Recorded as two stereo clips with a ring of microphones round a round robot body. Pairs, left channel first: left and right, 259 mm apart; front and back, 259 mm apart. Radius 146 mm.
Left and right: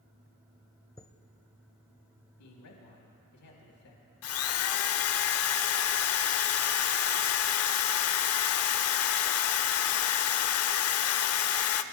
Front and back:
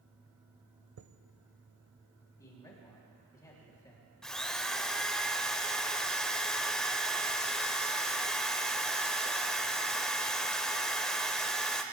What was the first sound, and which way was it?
A chime, 165° left.